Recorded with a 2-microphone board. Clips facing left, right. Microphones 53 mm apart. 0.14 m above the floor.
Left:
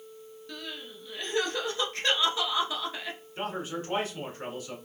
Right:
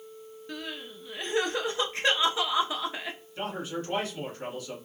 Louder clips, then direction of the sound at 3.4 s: Even; 30° left (ahead or behind).